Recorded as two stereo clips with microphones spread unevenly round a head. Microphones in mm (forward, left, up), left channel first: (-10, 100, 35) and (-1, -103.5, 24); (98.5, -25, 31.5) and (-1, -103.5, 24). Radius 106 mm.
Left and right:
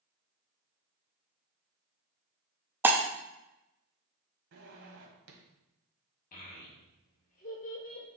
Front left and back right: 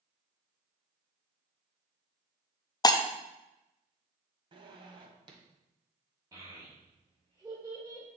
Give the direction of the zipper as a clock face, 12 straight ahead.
3 o'clock.